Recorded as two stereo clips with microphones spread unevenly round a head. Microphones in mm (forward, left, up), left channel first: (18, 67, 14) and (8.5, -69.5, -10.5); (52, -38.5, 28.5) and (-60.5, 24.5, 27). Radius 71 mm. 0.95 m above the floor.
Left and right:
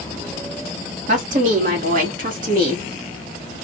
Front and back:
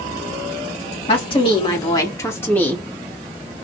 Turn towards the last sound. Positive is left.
turn(degrees=-110)